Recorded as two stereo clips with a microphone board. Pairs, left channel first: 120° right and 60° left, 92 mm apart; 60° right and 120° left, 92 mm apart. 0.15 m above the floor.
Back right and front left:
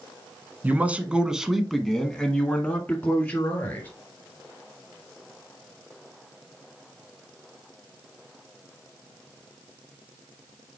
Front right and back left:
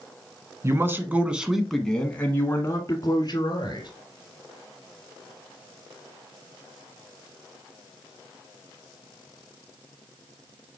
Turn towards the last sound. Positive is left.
turn(degrees=-65)